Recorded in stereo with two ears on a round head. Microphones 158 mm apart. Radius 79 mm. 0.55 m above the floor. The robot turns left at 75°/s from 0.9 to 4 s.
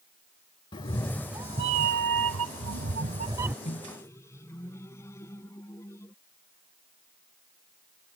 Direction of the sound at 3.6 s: 40° left (ahead or behind).